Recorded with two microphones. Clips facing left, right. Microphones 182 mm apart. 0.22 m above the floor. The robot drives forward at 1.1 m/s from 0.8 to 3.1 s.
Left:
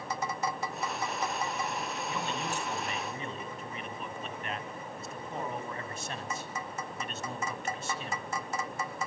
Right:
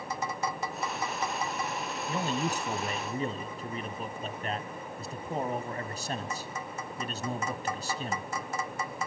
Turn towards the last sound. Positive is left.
turn(degrees=-35)  # may be behind; listen again after turning